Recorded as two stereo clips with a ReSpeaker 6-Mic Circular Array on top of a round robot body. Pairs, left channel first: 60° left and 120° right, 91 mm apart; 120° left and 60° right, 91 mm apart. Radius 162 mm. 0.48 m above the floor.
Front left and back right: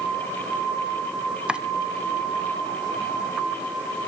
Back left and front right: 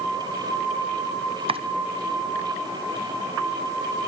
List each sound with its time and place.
1.5 s chopping: 40° right, 0.9 m